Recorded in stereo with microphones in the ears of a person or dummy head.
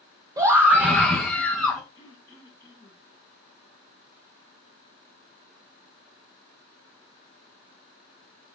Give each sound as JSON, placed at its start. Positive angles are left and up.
{"t": 0.4, "sound": "a scream", "side_deg": -15, "distance_m": 1.2}
{"t": 1.9, "sound": "throat clearing", "side_deg": 20, "distance_m": 5.0}